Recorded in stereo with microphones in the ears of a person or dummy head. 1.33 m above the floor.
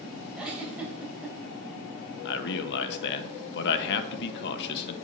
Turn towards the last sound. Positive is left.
turn(degrees=55)  # may be behind; listen again after turning